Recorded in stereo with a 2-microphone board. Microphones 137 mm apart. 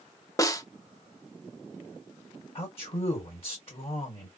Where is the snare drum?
25° left (ahead or behind), 0.5 m.